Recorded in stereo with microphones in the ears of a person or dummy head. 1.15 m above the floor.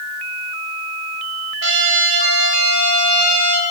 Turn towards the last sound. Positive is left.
turn(degrees=-70)  # may be behind; listen again after turning